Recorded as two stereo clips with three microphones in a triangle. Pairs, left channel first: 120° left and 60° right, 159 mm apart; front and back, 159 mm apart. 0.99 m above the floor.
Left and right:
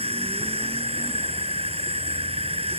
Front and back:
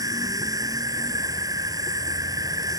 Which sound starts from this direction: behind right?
An insect, at 0.0 s.